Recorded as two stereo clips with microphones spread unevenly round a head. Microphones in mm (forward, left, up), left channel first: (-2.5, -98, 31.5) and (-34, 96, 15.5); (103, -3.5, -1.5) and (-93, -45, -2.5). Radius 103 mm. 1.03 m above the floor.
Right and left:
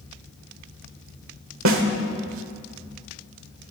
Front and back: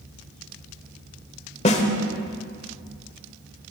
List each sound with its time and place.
1.6 s a snare drum: 70° left, 1.4 m